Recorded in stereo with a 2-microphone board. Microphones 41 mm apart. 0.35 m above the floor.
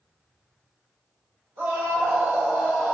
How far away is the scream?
About 1.7 m.